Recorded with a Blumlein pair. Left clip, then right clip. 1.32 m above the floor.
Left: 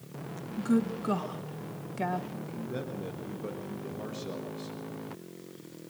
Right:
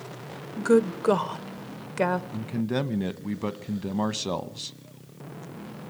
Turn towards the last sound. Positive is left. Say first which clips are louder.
# right 8 dB
turn(degrees=-50)